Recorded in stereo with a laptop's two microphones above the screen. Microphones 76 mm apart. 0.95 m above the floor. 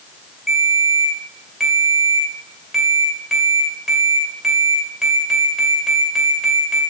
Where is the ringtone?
5° right (ahead or behind), 2.5 m.